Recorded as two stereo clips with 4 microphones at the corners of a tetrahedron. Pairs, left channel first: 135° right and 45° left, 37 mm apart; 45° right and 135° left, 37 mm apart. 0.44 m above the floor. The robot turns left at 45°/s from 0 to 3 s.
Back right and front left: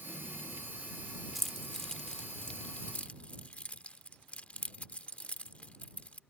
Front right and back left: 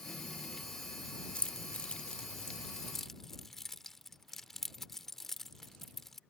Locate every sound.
1.4 s keys jangling: 45° right; by 6.2 s 120° right